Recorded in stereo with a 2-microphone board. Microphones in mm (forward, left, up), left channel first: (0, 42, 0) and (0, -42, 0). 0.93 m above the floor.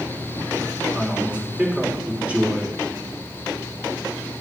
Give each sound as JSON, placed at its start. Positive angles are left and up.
{"t": 0.9, "sound": "a man speaking", "side_deg": -15, "distance_m": 3.5}